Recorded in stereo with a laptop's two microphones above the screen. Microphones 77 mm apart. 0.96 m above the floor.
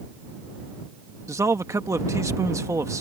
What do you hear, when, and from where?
1.3 s a man speaking: 40° right (ahead or behind)